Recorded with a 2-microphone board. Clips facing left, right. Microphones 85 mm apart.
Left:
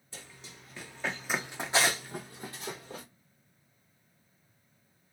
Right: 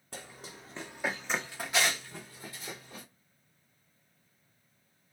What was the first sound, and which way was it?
Running footsteps, 55° right (ahead or behind).